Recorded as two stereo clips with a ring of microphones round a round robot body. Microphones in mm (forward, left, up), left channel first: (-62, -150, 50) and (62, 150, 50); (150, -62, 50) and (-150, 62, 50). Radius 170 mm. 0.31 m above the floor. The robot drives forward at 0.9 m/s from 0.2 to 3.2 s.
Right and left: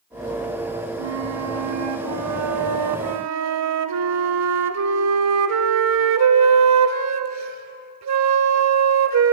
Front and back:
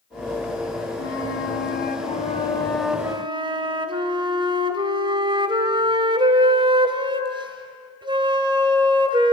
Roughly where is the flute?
Ahead left.